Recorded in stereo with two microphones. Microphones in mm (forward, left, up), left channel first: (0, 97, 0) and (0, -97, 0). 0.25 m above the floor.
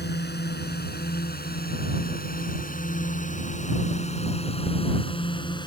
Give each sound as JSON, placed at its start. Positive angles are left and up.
{"t": 0.0, "sound": "a drone", "side_deg": 65}